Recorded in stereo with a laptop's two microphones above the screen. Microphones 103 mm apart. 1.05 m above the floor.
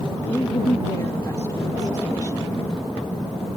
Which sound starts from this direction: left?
A woman speaking, at 0.3 s.